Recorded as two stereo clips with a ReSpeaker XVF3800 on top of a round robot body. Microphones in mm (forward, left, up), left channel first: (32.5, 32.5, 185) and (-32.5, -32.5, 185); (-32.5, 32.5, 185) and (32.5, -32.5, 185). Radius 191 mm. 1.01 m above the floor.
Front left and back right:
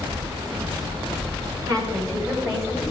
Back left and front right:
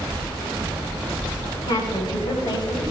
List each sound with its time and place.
1.7 s a woman speaking: 175° left, 5.5 m; by 2.9 s 165° left, 6 m